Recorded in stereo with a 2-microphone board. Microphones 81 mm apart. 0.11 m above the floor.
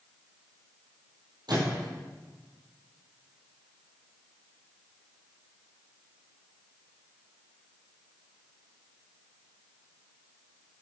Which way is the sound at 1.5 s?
60° right (ahead or behind).